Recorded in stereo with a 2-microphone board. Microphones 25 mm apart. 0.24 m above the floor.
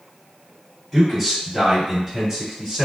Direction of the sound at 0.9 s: 5° right (ahead or behind).